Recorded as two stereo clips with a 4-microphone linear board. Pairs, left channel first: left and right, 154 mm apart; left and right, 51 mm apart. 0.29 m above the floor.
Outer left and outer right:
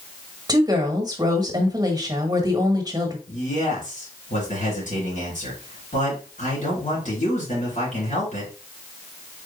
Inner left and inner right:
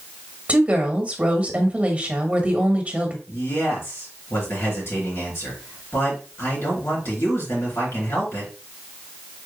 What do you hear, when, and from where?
0.5 s a woman speaking: 25° right (ahead or behind), 1.2 m
3.3 s a man speaking: 55° left (ahead or behind), 3.5 m